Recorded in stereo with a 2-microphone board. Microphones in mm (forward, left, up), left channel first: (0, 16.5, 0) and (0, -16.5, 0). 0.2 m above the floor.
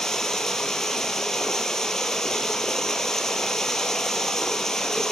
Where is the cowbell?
No cowbell in this recording.